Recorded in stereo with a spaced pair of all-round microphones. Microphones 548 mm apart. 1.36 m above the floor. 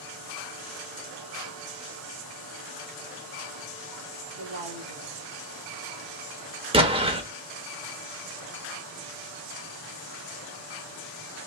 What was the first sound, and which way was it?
A woman speaking, 65° right (ahead or behind).